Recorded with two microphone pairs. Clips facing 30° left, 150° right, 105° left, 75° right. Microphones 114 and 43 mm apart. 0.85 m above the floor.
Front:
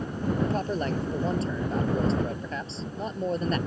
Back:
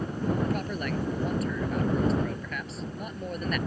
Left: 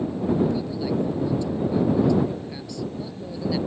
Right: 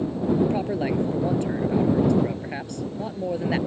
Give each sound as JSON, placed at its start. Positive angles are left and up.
{"t": 0.4, "sound": "a man speaking", "azimuth_deg": -30}